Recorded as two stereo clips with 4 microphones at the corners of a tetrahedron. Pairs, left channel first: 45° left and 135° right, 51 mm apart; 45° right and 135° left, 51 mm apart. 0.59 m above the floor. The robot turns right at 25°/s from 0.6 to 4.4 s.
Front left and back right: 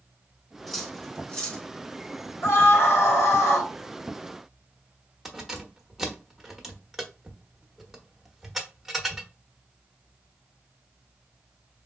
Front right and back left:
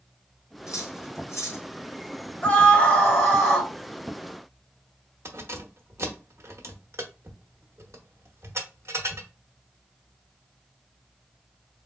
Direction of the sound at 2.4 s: 15° left.